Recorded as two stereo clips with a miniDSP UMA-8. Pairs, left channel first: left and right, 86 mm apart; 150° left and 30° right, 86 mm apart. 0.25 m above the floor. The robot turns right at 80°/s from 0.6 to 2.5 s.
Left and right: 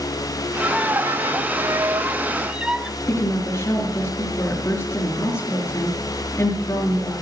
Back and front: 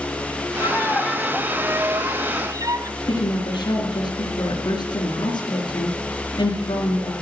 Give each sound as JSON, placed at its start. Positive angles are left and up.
{"t": 0.6, "sound": "a violin", "azimuth_deg": -170, "distance_m": 0.7}
{"t": 3.0, "sound": "a woman speaking", "azimuth_deg": 135, "distance_m": 4.0}